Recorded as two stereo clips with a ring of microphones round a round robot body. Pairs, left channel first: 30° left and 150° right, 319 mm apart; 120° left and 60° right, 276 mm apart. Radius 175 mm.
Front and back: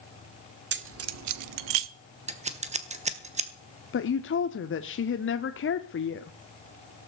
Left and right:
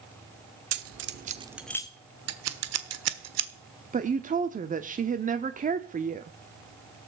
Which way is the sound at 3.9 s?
5° right.